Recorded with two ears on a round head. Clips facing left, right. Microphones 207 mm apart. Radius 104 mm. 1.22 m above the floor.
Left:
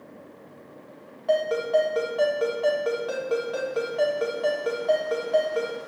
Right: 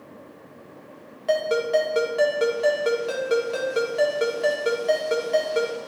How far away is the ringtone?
About 1.9 m.